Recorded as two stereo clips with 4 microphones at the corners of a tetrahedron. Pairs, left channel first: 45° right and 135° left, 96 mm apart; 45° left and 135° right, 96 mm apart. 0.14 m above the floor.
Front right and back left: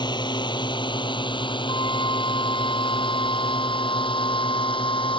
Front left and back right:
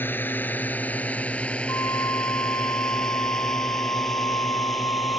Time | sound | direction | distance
0.0 | a drone | 20° right | ?
1.7 | a flute | 10° right | ?